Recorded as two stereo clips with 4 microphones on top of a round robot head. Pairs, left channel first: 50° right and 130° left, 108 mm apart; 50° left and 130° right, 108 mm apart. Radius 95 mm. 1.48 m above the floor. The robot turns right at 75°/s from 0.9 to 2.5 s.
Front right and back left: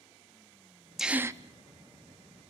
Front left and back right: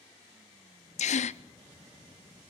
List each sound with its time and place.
1.0 s a gasp: 40° left, 0.7 m; by 1.4 s 70° left, 0.7 m